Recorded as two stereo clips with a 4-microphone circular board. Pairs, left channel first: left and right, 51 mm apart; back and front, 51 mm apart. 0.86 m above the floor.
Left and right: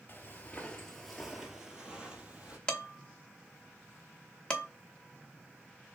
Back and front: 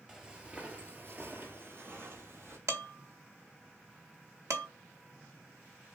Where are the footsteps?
70° left, 1.0 m; by 2.6 s 30° right, 1.6 m.